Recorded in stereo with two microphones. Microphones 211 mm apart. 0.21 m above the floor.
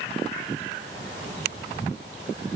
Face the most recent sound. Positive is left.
No sound to turn to.